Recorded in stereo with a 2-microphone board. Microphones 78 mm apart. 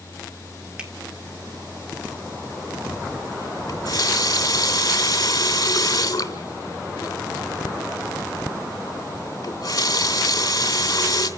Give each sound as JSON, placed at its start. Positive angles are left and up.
{"t": 0.8, "sound": "a finger snap", "side_deg": -10, "distance_m": 3.0}
{"t": 3.7, "sound": "a running tap", "side_deg": 50, "distance_m": 2.5}